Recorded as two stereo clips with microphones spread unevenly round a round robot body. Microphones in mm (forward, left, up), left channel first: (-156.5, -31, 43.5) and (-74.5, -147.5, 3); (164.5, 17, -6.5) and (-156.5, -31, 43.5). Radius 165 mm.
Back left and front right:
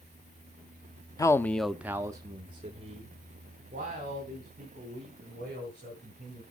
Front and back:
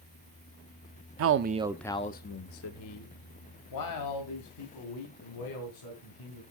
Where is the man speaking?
155° right, 0.8 m; by 6.4 s 5° right, 5 m.